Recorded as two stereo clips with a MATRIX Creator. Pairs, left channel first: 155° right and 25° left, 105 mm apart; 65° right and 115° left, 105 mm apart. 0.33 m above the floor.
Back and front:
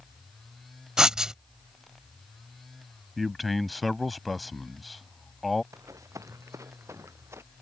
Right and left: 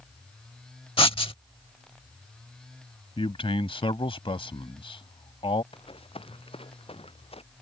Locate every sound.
1.0 s writing: 60° right
3.2 s a man speaking: 70° right
5.7 s running footsteps: 35° right; by 7.4 s 45° right